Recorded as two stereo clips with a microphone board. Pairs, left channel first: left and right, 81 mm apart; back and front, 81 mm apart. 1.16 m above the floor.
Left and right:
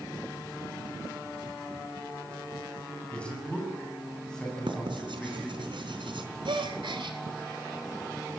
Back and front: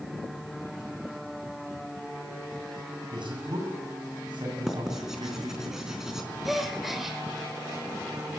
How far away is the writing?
About 4 m.